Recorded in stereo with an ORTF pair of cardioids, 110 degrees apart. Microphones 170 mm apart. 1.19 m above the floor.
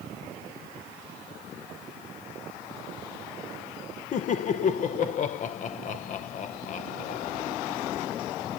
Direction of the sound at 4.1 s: 50° left.